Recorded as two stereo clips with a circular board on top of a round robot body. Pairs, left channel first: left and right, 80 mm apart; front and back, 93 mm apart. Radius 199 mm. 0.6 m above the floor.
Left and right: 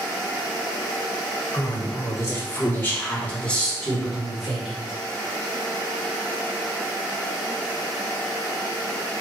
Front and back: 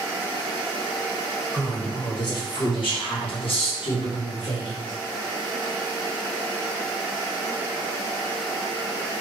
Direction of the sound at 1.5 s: 50° left.